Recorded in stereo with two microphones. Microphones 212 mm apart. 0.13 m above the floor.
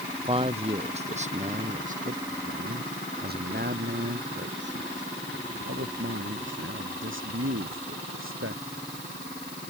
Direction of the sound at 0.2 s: 25° right (ahead or behind).